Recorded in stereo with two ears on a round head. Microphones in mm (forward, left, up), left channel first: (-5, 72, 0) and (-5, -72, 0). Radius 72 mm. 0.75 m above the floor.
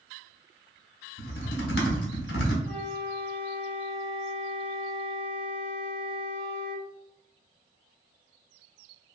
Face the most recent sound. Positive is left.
turn(degrees=15)  # may be behind; listen again after turning